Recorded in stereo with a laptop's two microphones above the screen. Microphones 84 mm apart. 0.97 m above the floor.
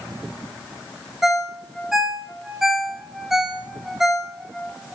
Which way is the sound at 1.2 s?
5° right (ahead or behind).